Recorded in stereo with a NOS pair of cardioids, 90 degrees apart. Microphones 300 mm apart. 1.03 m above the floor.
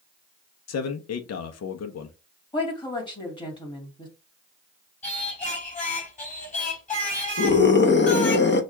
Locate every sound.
0.7 s a man speaking: 60° left, 1.0 m
2.5 s a woman speaking: 15° left, 2.5 m
5.0 s singing: 25° left, 4.5 m
7.4 s a scream: 35° left, 1.1 m